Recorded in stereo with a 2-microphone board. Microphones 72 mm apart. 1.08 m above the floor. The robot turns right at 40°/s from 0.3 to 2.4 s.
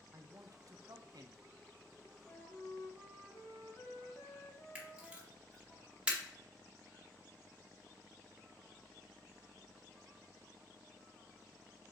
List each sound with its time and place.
0.1 s a man speaking: 130° right, 0.7 m; by 1.4 s 85° right, 0.7 m
2.2 s a flute: 50° left (ahead or behind), 1.8 m; by 5.8 s 45° left (ahead or behind), 1.8 m
4.8 s a camera shutter: 15° right (ahead or behind), 1.9 m